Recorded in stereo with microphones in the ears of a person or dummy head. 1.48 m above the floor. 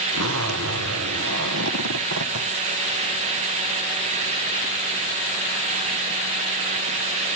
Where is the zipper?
85° right, 0.7 m.